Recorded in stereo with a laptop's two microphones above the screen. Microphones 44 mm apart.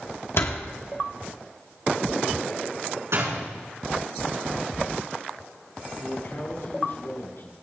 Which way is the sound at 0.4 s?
70° left (ahead or behind).